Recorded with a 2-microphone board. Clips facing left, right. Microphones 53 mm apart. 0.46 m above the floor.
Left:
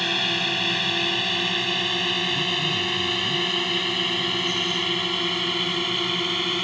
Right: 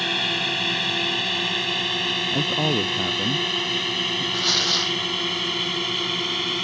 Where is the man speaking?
65° right (ahead or behind).